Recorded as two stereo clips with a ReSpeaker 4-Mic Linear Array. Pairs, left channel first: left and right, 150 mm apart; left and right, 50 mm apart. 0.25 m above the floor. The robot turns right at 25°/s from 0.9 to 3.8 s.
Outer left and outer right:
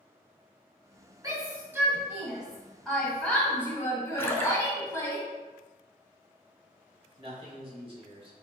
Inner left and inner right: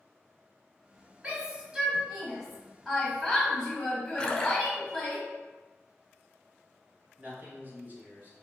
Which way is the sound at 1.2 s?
25° right (ahead or behind).